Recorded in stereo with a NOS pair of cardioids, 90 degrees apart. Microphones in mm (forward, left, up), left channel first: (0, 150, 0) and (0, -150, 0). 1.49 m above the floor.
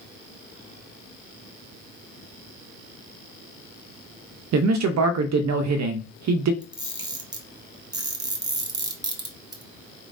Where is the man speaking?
65° right, 0.6 m.